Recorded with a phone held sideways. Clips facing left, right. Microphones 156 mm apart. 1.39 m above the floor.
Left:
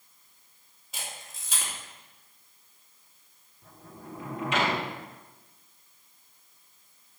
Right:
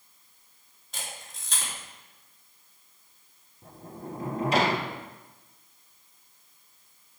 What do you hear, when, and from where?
0.9 s a camera shutter: 5° left (ahead or behind), 2.5 m
3.6 s a sliding door: 35° right (ahead or behind), 0.8 m